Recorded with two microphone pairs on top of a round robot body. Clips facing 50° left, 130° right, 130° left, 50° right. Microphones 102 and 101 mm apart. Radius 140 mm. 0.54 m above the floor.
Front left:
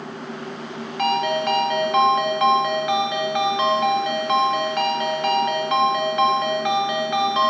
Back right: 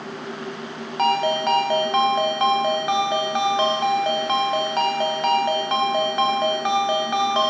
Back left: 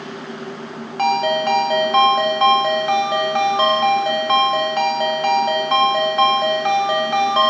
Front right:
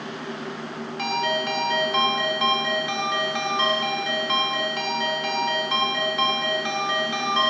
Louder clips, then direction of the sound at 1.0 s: Back right 1 dB, back left 8 dB; 175° left.